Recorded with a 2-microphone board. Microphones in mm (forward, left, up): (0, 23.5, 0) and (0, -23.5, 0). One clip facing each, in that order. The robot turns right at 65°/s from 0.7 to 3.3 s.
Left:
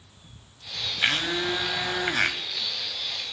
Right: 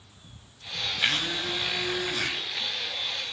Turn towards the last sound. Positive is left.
turn(degrees=160)